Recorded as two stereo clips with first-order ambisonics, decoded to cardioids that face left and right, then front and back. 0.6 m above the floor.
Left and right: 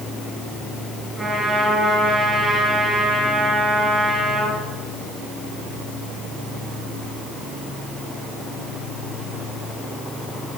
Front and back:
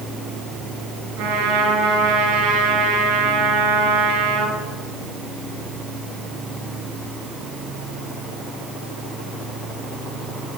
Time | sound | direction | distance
1.2 | a trumpet | 170° right | 3 m